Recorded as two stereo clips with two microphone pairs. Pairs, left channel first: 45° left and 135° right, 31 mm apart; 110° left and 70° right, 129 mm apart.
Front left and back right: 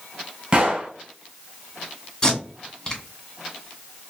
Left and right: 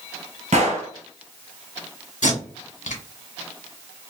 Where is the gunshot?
85° right, 1.4 m.